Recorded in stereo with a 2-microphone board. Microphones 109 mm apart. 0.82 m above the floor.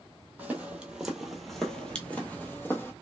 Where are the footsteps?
15° right (ahead or behind), 1.0 m; by 2.9 s 20° left (ahead or behind), 1.1 m.